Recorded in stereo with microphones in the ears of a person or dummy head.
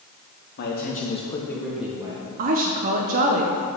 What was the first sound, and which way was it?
A man speaking, 55° left (ahead or behind).